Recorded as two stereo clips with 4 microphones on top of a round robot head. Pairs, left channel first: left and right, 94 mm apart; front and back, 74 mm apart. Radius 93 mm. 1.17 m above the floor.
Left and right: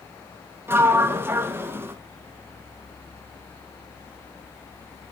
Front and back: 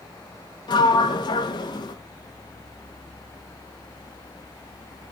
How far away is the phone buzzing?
No phone buzzing in this recording.